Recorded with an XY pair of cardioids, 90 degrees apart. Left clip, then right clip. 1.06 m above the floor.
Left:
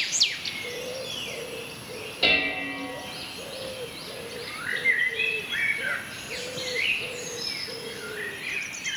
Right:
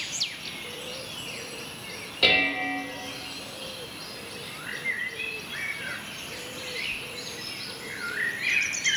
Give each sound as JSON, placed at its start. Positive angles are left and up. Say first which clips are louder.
{"t": 2.2, "sound": "dishes clattering", "louder": "right 1 dB", "azimuth_deg": -40, "distance_m": 1.8}